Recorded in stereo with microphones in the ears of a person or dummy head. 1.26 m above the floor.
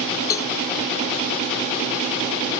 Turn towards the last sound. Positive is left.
turn(degrees=20)  # may be behind; listen again after turning